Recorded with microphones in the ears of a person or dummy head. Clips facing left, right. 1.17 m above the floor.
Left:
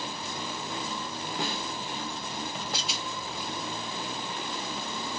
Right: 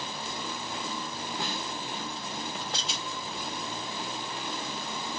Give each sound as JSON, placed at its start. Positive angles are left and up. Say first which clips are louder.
{"t": 1.4, "sound": "a snare drum", "louder": "left 3 dB", "side_deg": 50, "distance_m": 0.5}
{"t": 2.7, "sound": "a rattle", "louder": "left 1 dB", "side_deg": 5, "distance_m": 1.0}